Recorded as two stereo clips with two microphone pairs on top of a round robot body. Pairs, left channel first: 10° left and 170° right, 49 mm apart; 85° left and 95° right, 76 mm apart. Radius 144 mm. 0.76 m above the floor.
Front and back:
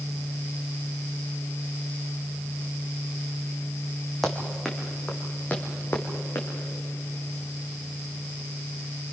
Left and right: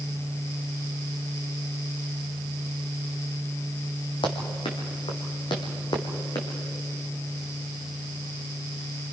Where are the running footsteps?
95° left, 2.5 m; by 6.5 s 45° left, 3 m.